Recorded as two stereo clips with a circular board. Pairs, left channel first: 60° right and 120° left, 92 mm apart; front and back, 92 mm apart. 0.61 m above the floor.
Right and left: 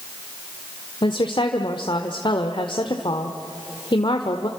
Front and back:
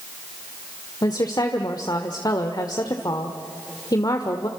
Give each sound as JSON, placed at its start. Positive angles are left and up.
{"t": 1.0, "sound": "a woman speaking", "azimuth_deg": -40, "distance_m": 1.5}